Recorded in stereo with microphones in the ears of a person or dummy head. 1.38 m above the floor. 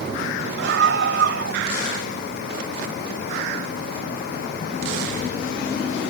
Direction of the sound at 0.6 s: 75° right (ahead or behind).